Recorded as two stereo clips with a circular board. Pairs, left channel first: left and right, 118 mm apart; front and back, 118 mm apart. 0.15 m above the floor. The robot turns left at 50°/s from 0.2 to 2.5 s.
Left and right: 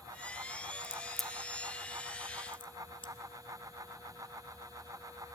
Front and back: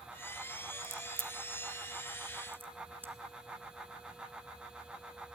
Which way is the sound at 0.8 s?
165° right.